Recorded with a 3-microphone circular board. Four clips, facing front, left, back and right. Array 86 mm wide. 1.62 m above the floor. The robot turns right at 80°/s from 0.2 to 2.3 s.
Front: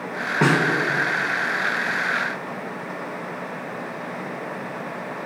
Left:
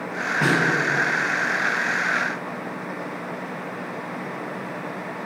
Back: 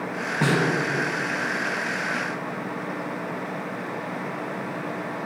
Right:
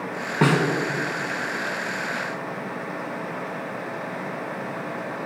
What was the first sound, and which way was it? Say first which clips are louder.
A snare drum: right 2 dB, front 3 dB; 55° right.